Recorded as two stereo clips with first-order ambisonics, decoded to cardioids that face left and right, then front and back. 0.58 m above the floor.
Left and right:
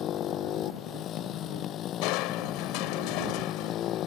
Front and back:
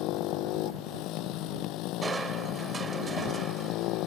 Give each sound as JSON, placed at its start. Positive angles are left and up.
{"t": 0.0, "sound": "a motorcycle", "azimuth_deg": 35}
{"t": 2.0, "sound": "crushing", "azimuth_deg": 105}